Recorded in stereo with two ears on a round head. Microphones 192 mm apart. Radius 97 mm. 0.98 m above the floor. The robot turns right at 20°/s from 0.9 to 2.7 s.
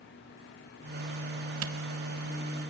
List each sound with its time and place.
1.6 s a camera shutter: 70° right (ahead or behind), 1.2 m; by 1.7 s 65° right (ahead or behind), 1.2 m